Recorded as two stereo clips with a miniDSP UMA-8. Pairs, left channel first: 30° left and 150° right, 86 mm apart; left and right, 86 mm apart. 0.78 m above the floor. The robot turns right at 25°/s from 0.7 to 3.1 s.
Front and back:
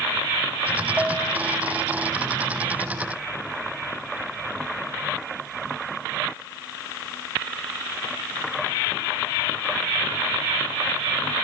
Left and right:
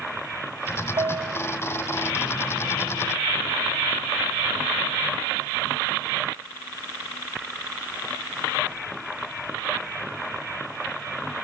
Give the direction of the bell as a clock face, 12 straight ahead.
2 o'clock.